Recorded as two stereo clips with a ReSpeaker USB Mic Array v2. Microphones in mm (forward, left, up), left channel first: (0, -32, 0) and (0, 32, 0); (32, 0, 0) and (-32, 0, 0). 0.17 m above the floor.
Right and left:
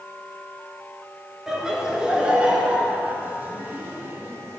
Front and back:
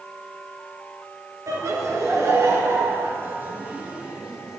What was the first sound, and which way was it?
Laughter, 170° left.